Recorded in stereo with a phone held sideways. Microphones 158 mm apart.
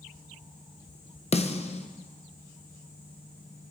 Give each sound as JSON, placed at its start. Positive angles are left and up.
{"t": 1.3, "sound": "a snare drum", "side_deg": 45, "distance_m": 0.9}